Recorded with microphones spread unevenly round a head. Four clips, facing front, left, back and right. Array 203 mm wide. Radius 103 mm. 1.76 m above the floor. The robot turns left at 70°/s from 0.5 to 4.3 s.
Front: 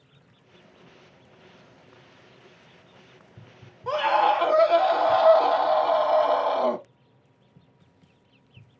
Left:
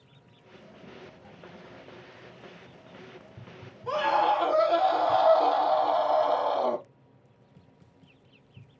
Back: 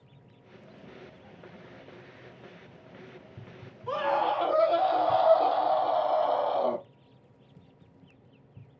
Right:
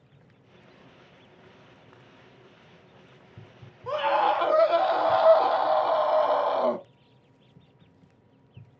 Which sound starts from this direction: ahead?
A scream, at 3.9 s.